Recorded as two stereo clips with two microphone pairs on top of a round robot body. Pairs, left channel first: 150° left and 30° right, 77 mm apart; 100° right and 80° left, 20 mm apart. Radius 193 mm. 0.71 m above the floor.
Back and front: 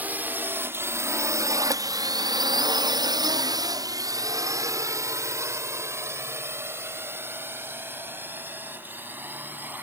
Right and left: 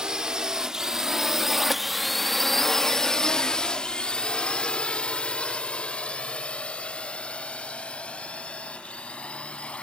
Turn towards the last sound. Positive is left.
turn(degrees=-95)